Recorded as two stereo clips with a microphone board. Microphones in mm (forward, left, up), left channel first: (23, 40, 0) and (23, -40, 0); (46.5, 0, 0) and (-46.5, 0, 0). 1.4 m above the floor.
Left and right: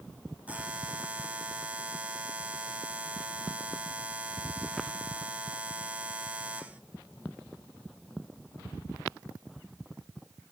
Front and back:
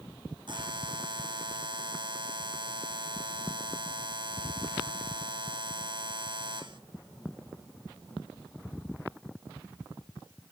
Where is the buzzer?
160° right, 0.8 m.